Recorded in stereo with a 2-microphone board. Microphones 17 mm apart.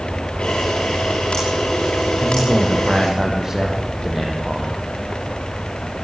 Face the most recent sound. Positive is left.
turn(degrees=-25)  # may be behind; listen again after turning